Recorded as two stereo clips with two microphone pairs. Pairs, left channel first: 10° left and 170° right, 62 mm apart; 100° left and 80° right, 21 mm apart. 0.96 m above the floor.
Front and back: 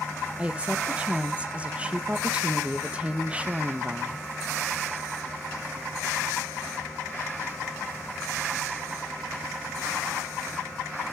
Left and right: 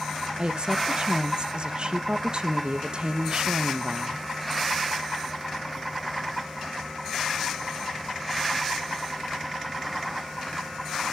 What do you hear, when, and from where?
0.4 s a woman speaking: 105° right, 0.9 m